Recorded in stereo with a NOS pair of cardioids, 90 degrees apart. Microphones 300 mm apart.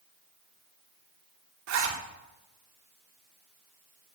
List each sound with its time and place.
1.7 s a zipper: 65° right, 3.5 m